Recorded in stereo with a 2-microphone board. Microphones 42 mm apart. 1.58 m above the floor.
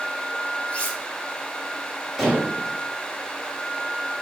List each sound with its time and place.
0.7 s cutlery clinking: 25° left (ahead or behind), 3.5 m
2.2 s dishes clattering: 5° right (ahead or behind), 5 m